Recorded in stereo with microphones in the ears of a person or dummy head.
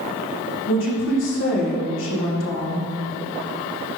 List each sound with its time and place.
0.7 s a woman speaking: 65° left (ahead or behind), 1.6 m